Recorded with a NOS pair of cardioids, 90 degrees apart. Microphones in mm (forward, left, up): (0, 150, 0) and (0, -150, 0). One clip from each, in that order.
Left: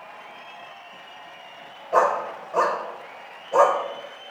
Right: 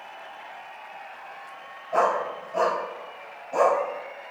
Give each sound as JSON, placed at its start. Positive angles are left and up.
{"t": 1.9, "sound": "a dog barking", "azimuth_deg": 45, "distance_m": 2.5}